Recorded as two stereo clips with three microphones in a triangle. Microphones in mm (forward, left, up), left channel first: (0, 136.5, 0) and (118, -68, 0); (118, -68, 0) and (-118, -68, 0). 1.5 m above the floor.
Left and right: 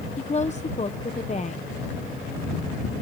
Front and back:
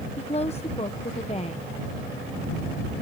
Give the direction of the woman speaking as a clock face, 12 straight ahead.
10 o'clock.